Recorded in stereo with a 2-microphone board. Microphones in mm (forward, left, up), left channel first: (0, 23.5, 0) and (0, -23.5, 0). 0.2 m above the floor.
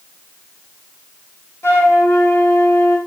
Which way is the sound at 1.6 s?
75° left (ahead or behind).